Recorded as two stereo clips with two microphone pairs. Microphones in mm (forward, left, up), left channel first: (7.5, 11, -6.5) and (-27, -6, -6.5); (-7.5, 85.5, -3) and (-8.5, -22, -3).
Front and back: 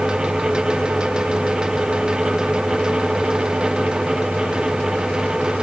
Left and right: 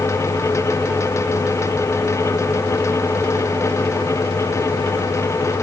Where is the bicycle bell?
I don't hear a bicycle bell.